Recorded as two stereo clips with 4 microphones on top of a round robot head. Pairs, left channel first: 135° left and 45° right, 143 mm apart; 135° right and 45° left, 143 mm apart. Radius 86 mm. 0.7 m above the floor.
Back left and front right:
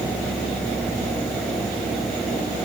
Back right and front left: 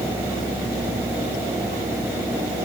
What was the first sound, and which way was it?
Only background noise.